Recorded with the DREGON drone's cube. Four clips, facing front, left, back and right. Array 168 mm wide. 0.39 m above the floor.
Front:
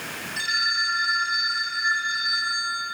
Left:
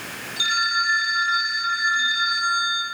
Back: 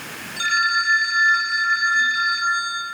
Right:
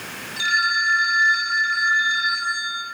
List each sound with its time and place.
0.4 s a phone ringing: 170° left, 7 m